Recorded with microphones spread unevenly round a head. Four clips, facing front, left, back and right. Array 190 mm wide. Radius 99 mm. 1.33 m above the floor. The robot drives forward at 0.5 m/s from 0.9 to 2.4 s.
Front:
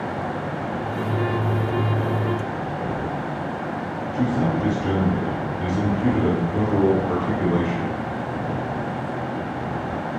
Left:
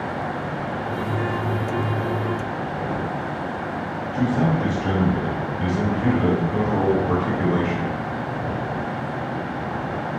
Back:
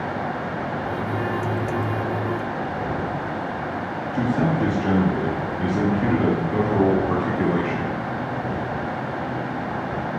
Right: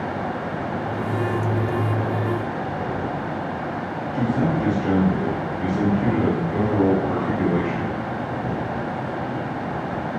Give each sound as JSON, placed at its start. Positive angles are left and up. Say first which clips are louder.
{"t": 4.1, "sound": "a man speaking", "louder": "left 1 dB, back 1 dB", "azimuth_deg": 175, "distance_m": 2.0}